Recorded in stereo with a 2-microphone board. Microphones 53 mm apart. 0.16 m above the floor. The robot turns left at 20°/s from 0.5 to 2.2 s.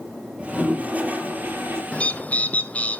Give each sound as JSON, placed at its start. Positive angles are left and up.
{"t": 0.4, "sound": "a toilet flushing", "side_deg": -20, "distance_m": 3.5}
{"t": 1.9, "sound": "a bird", "side_deg": 25, "distance_m": 0.9}